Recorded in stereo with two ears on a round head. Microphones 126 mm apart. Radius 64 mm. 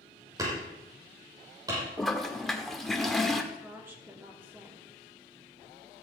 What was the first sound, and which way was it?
Hammering, 25° right (ahead or behind).